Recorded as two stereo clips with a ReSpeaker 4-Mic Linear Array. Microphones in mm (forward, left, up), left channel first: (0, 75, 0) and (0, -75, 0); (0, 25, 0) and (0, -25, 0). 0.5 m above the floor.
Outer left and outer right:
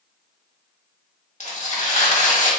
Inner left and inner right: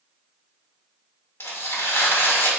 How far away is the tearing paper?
About 0.9 m.